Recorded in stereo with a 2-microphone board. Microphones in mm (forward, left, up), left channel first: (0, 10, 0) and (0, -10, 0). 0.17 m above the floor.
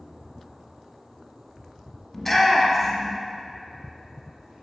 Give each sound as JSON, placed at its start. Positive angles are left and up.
{"t": 2.1, "sound": "a shout", "side_deg": 20, "distance_m": 1.0}